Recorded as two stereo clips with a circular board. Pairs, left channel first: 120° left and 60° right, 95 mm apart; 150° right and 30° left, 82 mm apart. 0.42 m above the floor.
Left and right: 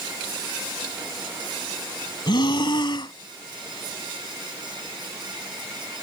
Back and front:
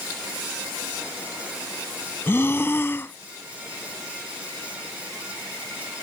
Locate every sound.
2.3 s breathing: 150° left